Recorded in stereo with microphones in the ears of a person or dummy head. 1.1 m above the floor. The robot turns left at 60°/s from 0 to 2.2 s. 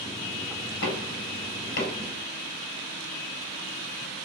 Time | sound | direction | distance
0.8 | knocking | 65° left (ahead or behind) | 5.5 m